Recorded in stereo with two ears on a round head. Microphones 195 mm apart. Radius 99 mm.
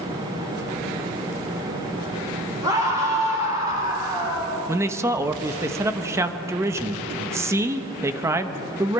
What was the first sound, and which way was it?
A scream, 15° right (ahead or behind).